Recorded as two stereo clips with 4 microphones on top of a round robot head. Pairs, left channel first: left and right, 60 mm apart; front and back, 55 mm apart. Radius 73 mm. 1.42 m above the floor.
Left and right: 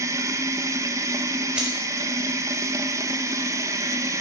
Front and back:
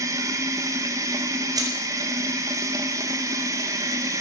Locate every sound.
0.0 s running water: 140° right, 1.0 m
1.6 s keys jangling: 165° right, 6 m